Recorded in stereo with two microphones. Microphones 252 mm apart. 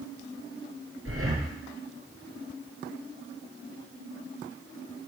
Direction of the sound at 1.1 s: 60° right (ahead or behind).